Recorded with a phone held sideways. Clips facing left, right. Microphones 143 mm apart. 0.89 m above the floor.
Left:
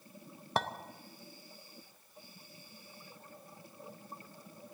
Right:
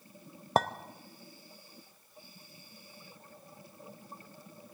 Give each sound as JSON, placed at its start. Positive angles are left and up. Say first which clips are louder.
{"t": 0.6, "sound": "a clink", "louder": "right 6 dB", "side_deg": -45, "distance_m": 0.6}